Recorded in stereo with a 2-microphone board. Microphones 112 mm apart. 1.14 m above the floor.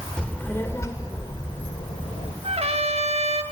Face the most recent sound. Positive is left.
turn(degrees=-60)  # may be behind; listen again after turning